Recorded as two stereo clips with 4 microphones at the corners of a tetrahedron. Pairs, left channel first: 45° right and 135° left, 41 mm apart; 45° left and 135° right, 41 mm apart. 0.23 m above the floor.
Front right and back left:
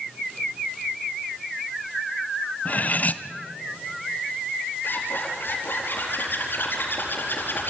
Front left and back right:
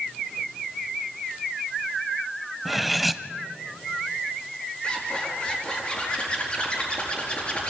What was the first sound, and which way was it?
Cutlery clinking, 45° right.